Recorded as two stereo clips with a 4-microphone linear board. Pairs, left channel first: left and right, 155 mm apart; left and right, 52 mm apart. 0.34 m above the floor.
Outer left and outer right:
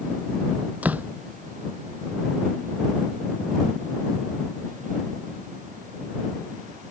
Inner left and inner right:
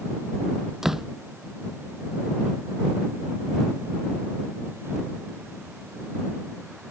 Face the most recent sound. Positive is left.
turn(degrees=-10)  # may be behind; listen again after turning